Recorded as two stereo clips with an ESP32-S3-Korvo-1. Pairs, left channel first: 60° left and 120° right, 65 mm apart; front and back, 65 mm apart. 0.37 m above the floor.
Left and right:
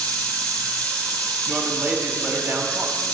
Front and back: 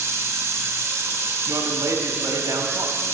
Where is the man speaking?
175° left, 1.8 m.